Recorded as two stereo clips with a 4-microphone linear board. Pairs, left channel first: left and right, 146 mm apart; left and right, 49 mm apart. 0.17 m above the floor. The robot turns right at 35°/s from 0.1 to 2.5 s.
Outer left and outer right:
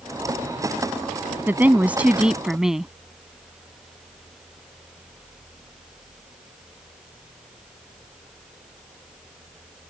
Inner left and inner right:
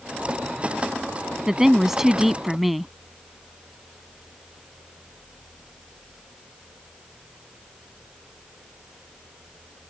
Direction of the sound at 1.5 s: 15° right (ahead or behind).